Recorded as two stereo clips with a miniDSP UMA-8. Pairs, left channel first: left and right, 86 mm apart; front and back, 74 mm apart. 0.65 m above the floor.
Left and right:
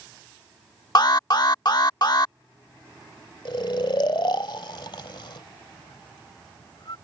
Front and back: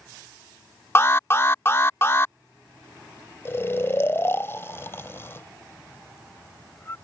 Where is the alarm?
55° left.